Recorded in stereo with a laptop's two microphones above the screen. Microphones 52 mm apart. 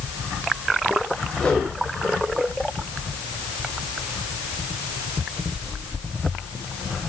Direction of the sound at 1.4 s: 15° left (ahead or behind).